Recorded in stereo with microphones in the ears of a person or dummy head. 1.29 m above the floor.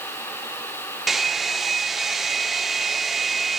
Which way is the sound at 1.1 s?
5° right (ahead or behind).